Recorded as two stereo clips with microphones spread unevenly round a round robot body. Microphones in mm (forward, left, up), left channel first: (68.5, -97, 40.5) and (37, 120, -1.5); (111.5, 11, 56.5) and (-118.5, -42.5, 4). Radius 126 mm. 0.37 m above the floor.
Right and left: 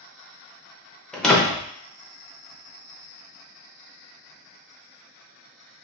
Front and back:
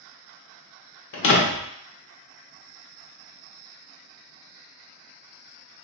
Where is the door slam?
20° left, 0.7 m.